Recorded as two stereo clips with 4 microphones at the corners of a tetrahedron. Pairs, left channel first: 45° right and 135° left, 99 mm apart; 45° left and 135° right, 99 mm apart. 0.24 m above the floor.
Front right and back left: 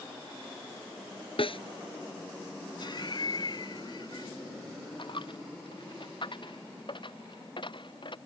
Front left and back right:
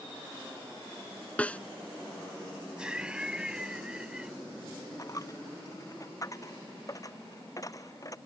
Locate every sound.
1.4 s a snare drum: 30° right
2.8 s laughter: 55° right
5.0 s a dropped coin: 10° right